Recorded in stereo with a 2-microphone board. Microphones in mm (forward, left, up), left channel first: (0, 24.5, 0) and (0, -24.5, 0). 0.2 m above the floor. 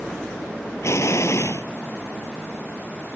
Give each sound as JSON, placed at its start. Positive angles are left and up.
{"t": 0.8, "sound": "an explosion", "side_deg": 70}